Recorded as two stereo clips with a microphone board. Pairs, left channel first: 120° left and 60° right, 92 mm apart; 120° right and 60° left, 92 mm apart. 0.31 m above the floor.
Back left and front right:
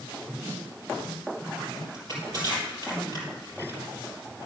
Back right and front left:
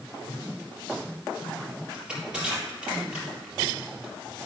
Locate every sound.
1.9 s crushing: 20° right, 3.5 m